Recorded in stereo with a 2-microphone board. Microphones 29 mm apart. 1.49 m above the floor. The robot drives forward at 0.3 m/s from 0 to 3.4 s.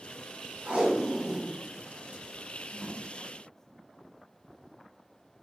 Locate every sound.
0.7 s tape being pulled: 70° right (ahead or behind), 1.6 m; by 3.0 s 65° right (ahead or behind), 1.7 m